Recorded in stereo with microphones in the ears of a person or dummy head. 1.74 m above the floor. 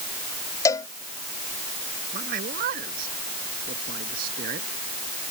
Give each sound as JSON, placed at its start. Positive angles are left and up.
{"t": 0.7, "sound": "a cowbell", "side_deg": 25}
{"t": 2.1, "sound": "a man speaking", "side_deg": -45}